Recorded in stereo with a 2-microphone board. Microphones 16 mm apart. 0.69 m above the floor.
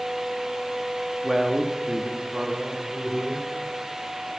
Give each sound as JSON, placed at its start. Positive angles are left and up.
{"t": 1.2, "sound": "a man speaking", "side_deg": -35, "distance_m": 0.8}